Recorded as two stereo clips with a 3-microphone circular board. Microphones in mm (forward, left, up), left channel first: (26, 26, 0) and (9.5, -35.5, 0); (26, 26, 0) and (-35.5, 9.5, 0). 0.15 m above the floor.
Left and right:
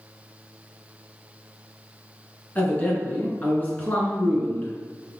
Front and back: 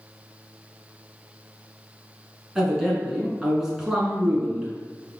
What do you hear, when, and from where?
2.5 s a man speaking: 115° left, 1.5 m